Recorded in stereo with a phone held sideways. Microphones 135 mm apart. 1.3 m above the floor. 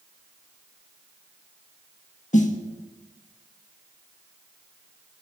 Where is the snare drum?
65° left (ahead or behind), 1.3 m.